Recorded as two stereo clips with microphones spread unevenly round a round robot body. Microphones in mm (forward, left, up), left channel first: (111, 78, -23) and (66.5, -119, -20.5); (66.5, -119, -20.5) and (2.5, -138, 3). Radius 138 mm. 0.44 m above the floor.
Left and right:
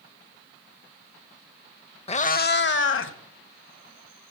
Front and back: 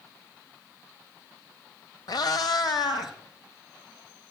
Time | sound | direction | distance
2.1 | a cat meowing | 15° left | 0.7 m